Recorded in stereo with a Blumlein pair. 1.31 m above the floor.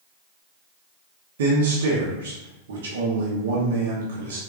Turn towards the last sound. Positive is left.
turn(degrees=-60)